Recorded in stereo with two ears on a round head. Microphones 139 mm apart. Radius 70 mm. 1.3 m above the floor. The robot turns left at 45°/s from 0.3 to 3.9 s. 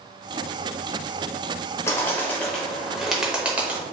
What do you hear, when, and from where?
1.9 s a bird: 20° left (ahead or behind), 1.0 m; by 3.8 s 15° right (ahead or behind), 1.0 m